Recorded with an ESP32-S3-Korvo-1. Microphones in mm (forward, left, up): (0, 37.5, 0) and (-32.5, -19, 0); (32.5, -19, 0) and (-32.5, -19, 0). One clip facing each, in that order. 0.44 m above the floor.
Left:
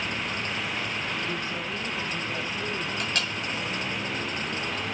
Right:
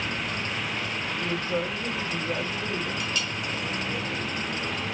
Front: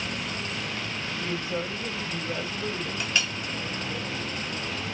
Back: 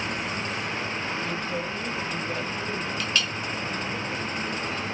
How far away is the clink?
About 1.1 m.